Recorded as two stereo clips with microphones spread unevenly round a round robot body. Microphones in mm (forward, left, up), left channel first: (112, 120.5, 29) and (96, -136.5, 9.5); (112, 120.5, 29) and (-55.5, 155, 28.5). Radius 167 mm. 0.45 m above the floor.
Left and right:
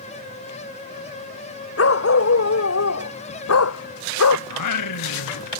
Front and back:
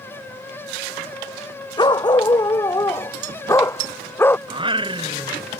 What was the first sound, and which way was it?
A dog barking, 55° left.